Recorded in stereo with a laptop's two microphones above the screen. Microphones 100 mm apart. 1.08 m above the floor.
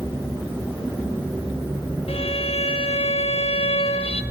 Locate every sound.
2.1 s a violin: 85° left, 1.0 m